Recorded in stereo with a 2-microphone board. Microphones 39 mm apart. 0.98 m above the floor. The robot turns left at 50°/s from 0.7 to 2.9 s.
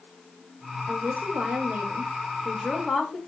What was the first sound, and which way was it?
A woman speaking, 100° right.